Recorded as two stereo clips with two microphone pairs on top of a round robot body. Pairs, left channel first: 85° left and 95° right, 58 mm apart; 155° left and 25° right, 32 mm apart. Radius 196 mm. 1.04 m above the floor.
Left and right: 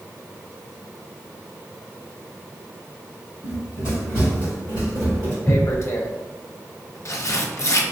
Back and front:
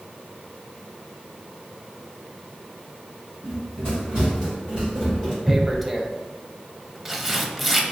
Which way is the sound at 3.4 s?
50° right.